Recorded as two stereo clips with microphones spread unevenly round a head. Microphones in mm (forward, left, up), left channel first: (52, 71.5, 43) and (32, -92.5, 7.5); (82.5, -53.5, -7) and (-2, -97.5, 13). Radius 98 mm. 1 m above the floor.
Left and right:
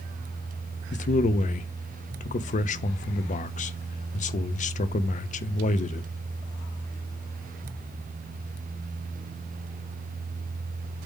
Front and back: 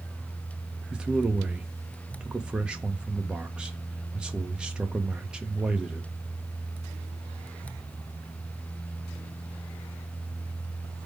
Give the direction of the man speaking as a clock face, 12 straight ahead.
8 o'clock.